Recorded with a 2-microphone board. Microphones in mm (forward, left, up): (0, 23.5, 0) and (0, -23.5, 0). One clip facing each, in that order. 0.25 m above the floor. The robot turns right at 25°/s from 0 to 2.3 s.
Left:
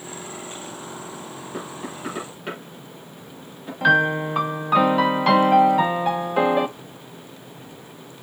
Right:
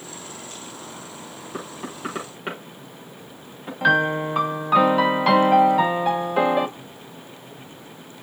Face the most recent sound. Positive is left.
turn(degrees=0)  # may be behind; listen again after turning